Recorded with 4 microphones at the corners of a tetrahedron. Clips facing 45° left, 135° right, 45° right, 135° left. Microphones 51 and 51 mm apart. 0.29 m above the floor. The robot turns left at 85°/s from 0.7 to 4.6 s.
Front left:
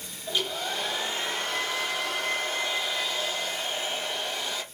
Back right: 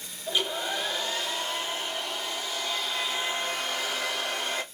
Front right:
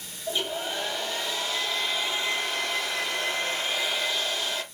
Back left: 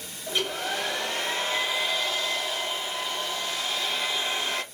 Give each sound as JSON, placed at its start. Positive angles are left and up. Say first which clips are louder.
{"t": 0.3, "sound": "a hair dryer", "louder": "back right 1 dB, back left 1 dB", "azimuth_deg": 150, "distance_m": 1.4}